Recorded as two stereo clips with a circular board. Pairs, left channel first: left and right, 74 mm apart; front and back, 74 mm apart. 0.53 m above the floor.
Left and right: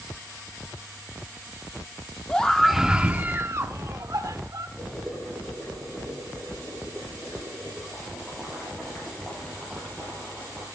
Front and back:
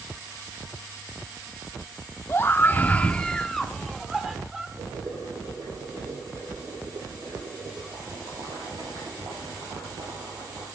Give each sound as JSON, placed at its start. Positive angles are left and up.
{"t": 2.3, "sound": "a scream", "azimuth_deg": 25, "distance_m": 1.0}
{"t": 4.8, "sound": "boiling", "azimuth_deg": 165, "distance_m": 6.0}